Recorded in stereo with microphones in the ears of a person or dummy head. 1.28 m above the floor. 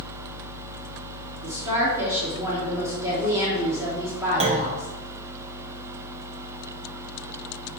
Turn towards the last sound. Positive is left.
turn(degrees=-40)  # may be behind; listen again after turning